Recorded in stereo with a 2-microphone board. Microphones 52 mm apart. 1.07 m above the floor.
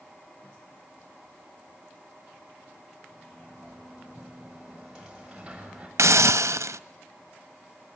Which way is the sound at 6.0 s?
80° right.